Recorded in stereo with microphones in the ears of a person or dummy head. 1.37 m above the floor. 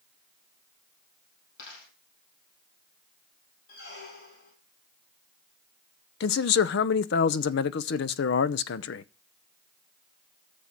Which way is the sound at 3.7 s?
60° left (ahead or behind).